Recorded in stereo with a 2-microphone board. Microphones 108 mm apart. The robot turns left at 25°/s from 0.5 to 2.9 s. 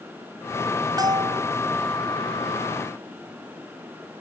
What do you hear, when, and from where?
1.0 s a bell: 35° right (ahead or behind); by 1.5 s 50° right (ahead or behind)